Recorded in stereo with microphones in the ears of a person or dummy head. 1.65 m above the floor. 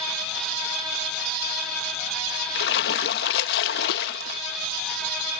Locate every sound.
2.5 s a splash: 55° left (ahead or behind)